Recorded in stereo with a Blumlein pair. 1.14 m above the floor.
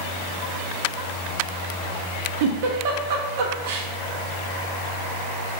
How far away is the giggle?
About 0.8 m.